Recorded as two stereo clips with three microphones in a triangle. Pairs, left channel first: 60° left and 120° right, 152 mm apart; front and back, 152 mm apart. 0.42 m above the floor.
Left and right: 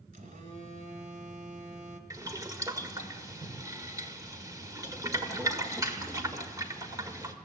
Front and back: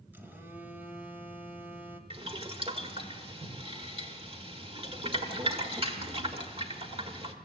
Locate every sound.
0.1 s a phone buzzing: 105° right, 1.8 m
2.1 s boiling: 170° right, 1.7 m